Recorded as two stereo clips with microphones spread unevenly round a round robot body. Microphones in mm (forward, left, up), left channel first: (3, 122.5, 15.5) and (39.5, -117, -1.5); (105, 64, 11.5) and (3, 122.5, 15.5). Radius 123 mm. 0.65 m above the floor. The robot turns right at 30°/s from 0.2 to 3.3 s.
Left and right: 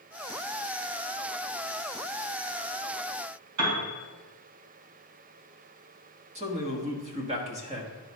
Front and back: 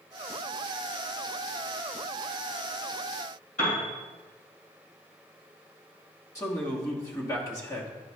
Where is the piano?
75° right, 2.5 m.